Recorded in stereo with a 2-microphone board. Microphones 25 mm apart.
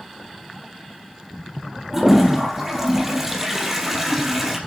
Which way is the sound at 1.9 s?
10° right (ahead or behind).